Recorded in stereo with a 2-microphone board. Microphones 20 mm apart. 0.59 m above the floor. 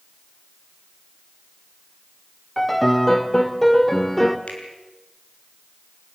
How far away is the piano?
About 1.5 m.